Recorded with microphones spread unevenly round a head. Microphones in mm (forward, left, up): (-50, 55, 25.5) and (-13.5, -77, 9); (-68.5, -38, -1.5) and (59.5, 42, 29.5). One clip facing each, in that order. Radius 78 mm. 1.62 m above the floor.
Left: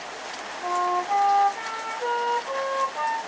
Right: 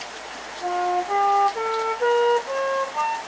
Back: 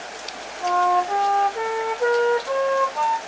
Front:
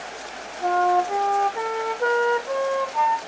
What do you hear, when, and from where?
0.6 s a flute: 35° right, 1.6 m